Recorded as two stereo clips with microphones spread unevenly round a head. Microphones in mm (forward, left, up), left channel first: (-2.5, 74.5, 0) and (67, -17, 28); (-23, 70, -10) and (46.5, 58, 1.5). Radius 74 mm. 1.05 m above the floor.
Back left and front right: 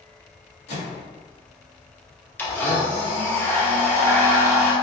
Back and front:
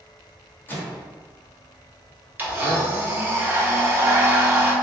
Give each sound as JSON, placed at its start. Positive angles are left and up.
{"t": 0.7, "sound": "a microwave", "azimuth_deg": 110, "distance_m": 1.5}
{"t": 2.4, "sound": "a blender", "azimuth_deg": 55, "distance_m": 1.1}